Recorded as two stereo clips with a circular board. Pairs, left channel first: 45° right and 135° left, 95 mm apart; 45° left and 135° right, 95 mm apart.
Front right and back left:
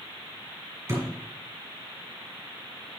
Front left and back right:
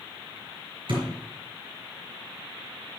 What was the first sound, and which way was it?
A thud, 165° right.